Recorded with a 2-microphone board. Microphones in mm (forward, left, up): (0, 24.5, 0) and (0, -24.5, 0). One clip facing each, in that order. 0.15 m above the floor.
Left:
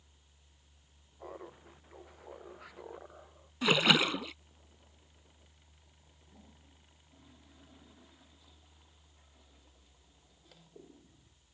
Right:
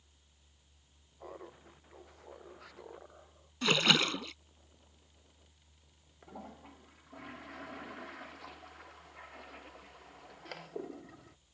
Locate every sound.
1.2 s laughter: 5° left (ahead or behind); by 3.5 s 15° left (ahead or behind)
3.6 s a splash: 10° left (ahead or behind)
6.2 s a toilet flushing: 70° right (ahead or behind)